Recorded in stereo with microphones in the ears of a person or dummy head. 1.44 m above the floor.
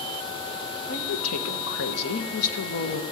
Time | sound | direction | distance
0.9 | a woman speaking | 80° left | 1.1 m